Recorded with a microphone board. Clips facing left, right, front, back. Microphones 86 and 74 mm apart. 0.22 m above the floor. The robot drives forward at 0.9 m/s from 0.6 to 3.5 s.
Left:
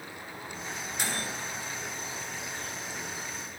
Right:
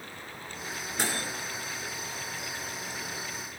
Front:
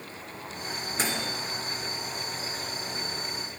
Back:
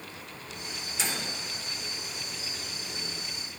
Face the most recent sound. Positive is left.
turn(degrees=-115)